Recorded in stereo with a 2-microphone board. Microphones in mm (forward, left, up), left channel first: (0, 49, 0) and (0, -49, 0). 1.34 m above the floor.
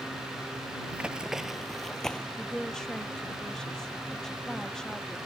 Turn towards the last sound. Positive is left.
turn(degrees=5)  # may be behind; listen again after turning